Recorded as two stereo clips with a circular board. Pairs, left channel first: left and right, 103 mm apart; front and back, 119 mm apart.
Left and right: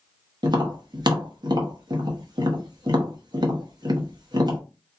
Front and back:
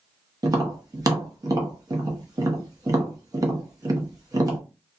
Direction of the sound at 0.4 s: 125° right.